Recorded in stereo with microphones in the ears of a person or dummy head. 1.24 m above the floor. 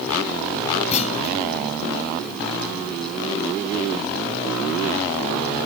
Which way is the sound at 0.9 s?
35° left (ahead or behind).